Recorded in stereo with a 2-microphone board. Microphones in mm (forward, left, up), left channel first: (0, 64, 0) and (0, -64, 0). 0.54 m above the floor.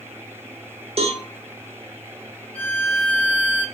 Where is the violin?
10° left (ahead or behind), 1.2 m.